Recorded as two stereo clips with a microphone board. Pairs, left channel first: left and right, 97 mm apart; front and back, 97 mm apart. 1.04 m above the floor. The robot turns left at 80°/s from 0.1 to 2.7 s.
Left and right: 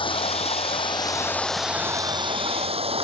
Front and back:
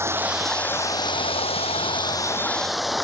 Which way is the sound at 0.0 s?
120° left.